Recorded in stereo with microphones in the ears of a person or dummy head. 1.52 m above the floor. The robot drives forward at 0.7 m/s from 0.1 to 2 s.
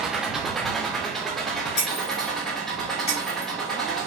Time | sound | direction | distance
0.0 | an engine running | 10° right (ahead or behind) | 1.1 m
1.8 | breaking glass | 35° left (ahead or behind) | 2 m